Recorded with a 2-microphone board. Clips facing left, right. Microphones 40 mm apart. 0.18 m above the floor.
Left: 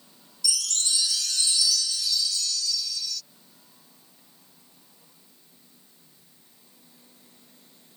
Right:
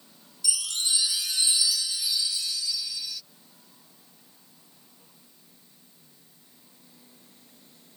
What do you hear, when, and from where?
0.4 s a chime: 20° right (ahead or behind)